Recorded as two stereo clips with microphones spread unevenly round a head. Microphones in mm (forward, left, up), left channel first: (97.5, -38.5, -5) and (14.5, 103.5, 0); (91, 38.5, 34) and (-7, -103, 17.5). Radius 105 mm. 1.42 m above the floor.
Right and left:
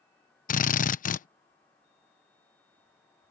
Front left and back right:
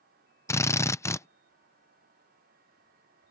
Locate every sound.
0.5 s a drill: 20° right